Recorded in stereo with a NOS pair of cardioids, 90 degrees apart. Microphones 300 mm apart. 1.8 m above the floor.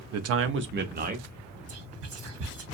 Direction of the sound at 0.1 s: 60° right.